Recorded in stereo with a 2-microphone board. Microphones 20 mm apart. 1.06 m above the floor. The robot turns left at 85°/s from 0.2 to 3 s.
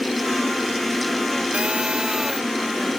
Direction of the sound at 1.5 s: 95° right.